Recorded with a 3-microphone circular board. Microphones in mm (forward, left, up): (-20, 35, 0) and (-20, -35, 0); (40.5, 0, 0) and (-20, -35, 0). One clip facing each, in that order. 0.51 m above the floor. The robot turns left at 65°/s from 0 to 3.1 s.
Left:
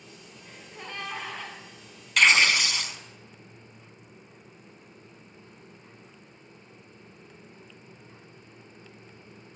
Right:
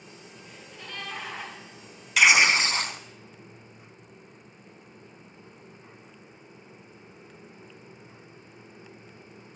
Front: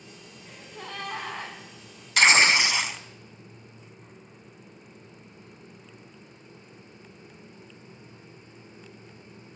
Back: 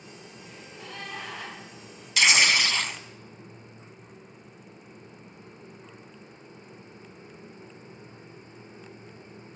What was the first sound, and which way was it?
A gasp, 55° left.